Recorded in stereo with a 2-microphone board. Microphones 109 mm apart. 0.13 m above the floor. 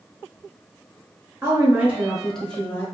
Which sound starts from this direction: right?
A woman speaking, at 1.4 s.